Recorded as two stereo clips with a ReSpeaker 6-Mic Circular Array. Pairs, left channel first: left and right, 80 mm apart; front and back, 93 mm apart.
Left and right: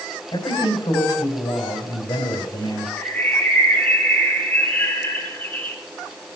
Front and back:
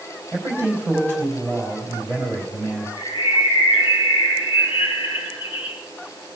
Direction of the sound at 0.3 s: 65° left.